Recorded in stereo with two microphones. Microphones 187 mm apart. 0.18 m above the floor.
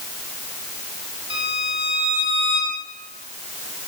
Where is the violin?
75° left (ahead or behind), 7.5 m.